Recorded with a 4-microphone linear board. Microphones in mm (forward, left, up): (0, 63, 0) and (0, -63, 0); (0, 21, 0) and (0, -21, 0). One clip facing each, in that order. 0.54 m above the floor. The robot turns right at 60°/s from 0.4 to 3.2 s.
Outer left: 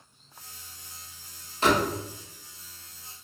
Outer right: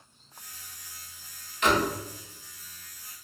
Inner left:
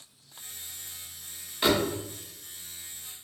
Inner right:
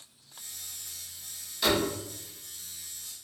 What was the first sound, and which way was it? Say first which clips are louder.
A door slam: outer left 1 dB, inner left 2 dB; 35° left (ahead or behind).